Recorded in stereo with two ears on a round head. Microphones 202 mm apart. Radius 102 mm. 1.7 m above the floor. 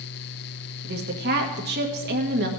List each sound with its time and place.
0.8 s a woman speaking: 45° right (ahead or behind), 1.7 m